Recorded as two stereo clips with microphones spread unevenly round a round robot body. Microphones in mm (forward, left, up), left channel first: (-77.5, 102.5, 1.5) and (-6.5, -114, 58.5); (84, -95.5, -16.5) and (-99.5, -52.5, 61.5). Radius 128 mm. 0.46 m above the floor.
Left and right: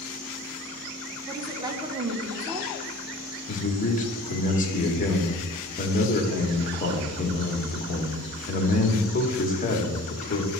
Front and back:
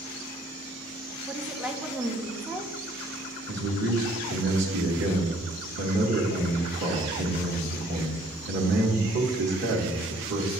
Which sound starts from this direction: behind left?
A man speaking, at 3.5 s.